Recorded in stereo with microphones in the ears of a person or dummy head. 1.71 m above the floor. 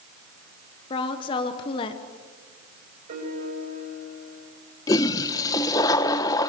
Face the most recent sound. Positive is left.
turn(degrees=20)  # may be behind; listen again after turning